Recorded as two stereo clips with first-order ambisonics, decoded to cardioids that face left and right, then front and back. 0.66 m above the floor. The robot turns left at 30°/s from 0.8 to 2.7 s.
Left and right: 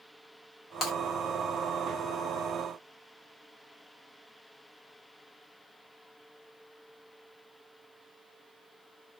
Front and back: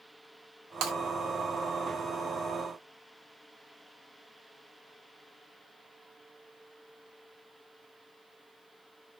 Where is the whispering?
I don't hear whispering.